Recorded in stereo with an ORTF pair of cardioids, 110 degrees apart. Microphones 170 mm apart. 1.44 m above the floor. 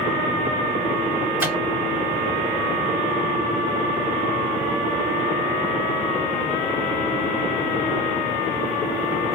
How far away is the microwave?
About 0.9 m.